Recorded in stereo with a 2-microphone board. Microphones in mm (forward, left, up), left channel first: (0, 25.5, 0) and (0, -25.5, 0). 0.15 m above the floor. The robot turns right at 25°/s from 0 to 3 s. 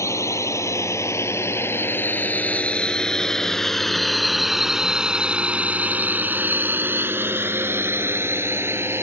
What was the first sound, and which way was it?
A drone, 65° left (ahead or behind).